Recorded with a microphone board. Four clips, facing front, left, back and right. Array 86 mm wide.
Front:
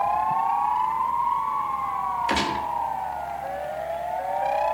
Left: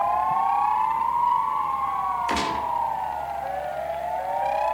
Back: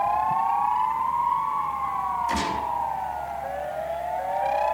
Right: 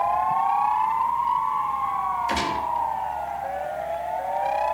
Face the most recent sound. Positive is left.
turn(degrees=35)